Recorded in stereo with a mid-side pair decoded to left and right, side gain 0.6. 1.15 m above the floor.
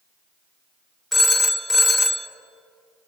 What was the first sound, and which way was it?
A phone ringing, 5° left.